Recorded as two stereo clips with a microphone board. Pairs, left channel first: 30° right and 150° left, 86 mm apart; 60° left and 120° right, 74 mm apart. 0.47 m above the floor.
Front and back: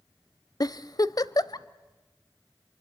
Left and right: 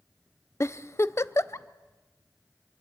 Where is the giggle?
10° left, 0.6 m.